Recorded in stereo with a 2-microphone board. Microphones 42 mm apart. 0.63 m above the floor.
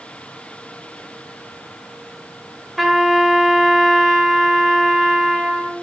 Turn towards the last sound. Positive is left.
turn(degrees=-5)  # may be behind; listen again after turning